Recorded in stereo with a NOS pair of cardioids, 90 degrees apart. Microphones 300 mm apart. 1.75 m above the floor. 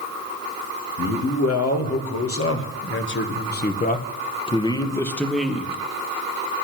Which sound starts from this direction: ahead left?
A man speaking, at 1.0 s.